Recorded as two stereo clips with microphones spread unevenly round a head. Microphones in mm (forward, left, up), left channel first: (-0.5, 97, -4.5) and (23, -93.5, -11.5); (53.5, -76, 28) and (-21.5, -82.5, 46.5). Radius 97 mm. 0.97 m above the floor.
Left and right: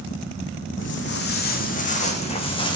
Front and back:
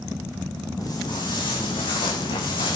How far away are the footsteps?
About 2.5 m.